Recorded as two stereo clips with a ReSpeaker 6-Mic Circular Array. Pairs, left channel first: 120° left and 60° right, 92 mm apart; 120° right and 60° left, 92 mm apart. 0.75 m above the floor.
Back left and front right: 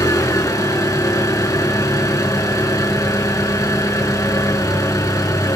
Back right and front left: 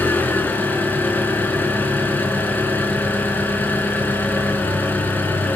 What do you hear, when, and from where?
0.0 s an engine running: 170° left, 4 m